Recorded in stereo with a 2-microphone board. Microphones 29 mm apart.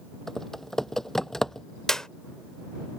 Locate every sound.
0.3 s typing on a keyboard: 15° left (ahead or behind)
1.9 s a clap: 20° left (ahead or behind)